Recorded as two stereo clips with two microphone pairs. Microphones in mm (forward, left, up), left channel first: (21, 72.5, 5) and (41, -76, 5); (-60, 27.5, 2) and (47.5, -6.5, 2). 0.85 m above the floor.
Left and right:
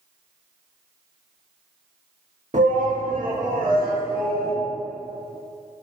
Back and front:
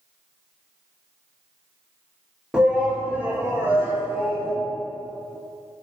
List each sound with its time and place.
2.5 s a shout: 100° right, 1.2 m; by 4.5 s 85° right, 2.5 m